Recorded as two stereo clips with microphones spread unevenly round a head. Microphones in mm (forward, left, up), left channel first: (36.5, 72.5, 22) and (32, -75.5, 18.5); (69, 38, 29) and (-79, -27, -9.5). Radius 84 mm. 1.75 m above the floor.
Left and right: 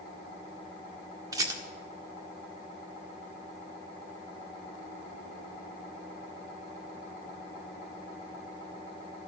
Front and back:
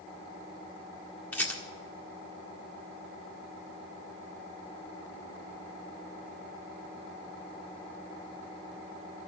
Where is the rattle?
35° right, 1.6 m.